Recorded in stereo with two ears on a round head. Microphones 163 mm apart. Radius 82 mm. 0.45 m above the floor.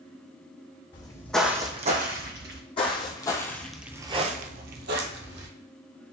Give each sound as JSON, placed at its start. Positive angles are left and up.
{"t": 0.9, "sound": "footsteps", "side_deg": 30, "distance_m": 1.1}
{"t": 2.8, "sound": "footsteps", "side_deg": 30, "distance_m": 1.3}